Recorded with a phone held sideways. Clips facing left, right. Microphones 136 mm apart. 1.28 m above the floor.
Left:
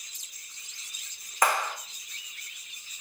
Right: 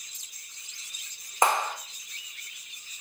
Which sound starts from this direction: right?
A clap, at 1.4 s.